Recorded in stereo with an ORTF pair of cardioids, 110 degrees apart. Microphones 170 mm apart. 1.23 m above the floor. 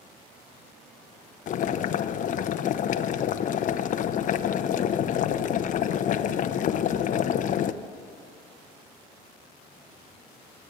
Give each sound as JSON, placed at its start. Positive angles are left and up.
{"t": 1.5, "sound": "boiling", "azimuth_deg": 50, "distance_m": 0.8}